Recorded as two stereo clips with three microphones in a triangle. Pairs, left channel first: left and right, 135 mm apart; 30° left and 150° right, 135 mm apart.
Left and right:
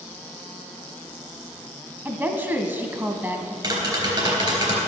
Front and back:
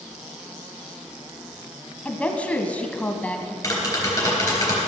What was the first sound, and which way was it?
A woman speaking, 35° right.